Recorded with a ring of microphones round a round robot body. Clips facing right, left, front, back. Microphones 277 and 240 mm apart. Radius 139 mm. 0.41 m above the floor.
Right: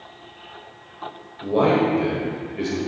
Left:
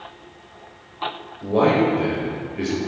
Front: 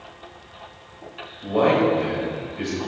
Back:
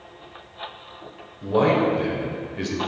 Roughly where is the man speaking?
Behind.